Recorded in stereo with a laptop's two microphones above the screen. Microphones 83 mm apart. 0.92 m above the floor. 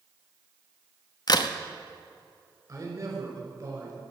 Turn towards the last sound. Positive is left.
turn(degrees=-40)  # may be behind; listen again after turning